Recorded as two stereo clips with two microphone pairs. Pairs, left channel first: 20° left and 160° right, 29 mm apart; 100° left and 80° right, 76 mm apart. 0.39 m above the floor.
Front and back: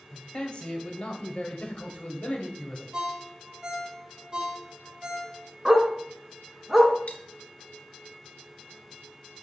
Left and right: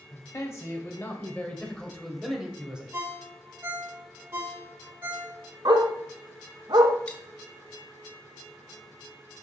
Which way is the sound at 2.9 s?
115° right.